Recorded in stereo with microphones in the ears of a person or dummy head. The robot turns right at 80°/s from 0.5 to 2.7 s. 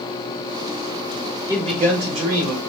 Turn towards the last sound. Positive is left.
turn(degrees=-70)